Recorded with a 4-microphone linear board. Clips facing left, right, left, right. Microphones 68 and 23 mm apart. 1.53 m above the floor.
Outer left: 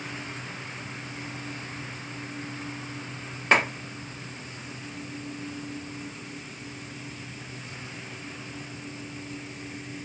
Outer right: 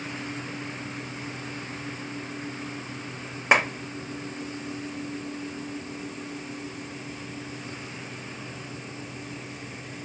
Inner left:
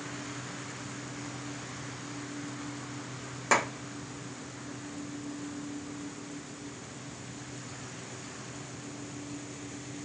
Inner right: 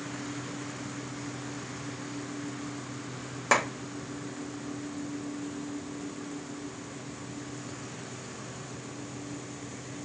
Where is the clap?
15° right (ahead or behind), 1.5 m.